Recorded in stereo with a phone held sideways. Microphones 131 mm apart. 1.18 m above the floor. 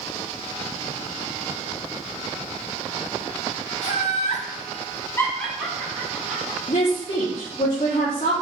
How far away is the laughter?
About 1.4 m.